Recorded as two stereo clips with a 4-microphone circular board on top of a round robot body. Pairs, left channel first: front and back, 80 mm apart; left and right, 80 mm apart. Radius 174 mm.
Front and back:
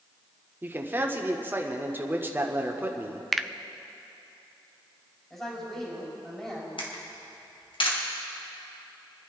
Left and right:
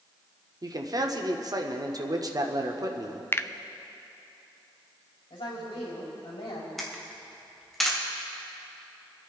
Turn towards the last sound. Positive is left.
turn(degrees=0)